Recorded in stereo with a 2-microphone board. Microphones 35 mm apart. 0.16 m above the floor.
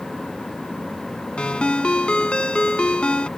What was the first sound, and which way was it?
A ringtone, 30° left (ahead or behind).